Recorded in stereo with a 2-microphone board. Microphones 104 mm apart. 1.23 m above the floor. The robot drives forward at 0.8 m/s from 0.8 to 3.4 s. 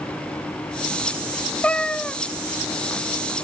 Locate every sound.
1.6 s a cat meowing: 10° left (ahead or behind), 0.6 m